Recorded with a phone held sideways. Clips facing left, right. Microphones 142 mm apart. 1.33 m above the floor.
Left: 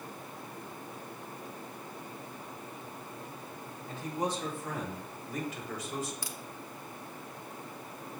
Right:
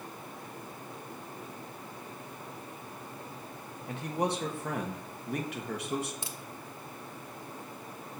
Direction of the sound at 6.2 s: 25° right (ahead or behind).